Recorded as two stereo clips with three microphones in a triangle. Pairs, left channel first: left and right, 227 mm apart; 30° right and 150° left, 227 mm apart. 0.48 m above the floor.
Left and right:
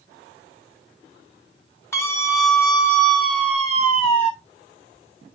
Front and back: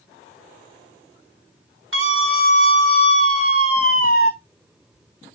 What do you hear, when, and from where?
1.9 s a scream: 170° left, 4 m; by 4.3 s 155° left, 5 m